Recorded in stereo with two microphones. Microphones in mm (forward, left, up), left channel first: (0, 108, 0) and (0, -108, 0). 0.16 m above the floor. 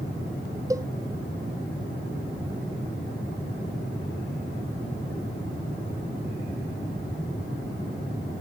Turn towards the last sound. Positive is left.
turn(degrees=-15)  # may be behind; listen again after turning